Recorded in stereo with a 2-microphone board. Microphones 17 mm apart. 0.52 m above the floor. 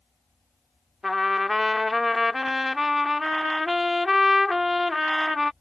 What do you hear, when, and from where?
1.0 s a trumpet: 10° right (ahead or behind)